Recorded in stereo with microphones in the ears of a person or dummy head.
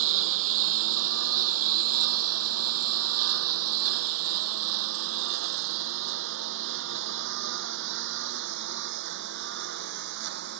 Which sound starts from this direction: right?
A lawn mower, at 0.0 s.